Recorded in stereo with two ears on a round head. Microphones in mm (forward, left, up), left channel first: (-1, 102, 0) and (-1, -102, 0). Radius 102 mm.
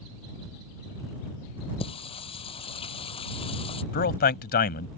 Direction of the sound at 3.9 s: 45° left (ahead or behind).